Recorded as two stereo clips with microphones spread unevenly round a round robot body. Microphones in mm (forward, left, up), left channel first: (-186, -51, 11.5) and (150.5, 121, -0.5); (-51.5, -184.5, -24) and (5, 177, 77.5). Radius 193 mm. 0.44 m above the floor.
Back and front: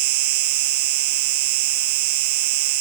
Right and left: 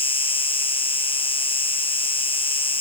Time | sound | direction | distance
0.0 | an insect | 20° right | ?